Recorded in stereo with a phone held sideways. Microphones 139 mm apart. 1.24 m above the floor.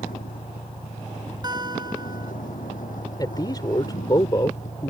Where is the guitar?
30° right (ahead or behind).